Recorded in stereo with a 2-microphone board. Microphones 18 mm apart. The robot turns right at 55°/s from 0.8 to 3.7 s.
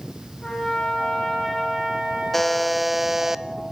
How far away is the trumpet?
About 9.5 m.